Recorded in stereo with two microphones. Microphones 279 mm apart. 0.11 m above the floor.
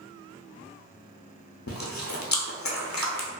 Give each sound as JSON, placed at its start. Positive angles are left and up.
{"t": 1.7, "sound": "chewing", "side_deg": 75, "distance_m": 0.6}